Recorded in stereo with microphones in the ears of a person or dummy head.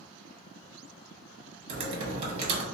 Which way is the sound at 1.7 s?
35° right (ahead or behind).